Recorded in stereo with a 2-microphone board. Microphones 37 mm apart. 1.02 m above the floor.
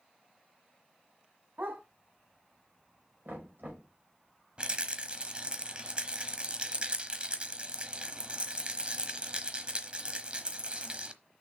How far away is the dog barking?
About 2.5 m.